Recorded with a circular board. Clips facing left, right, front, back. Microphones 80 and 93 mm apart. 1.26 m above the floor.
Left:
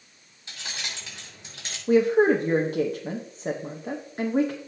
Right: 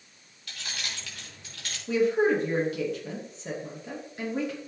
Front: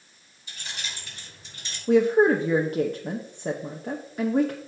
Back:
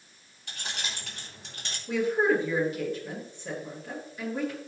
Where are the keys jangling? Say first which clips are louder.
Left 1 dB, back 1 dB; 155° left, 3 m.